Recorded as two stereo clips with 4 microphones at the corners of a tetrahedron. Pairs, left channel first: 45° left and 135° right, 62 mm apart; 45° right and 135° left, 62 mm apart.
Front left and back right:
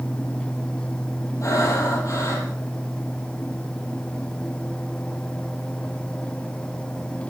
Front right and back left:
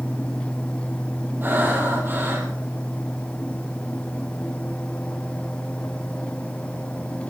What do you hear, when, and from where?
1.4 s breathing: 80° left, 5 m